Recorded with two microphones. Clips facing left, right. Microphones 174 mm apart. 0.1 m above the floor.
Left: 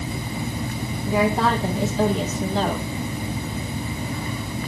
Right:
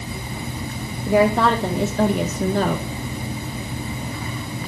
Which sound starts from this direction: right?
A woman speaking, at 1.1 s.